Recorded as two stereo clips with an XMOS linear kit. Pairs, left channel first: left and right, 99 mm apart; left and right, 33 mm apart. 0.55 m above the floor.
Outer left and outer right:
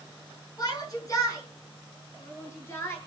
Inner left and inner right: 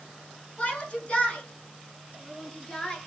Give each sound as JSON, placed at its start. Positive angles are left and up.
{"t": 0.6, "sound": "a shout", "side_deg": 40, "distance_m": 7.0}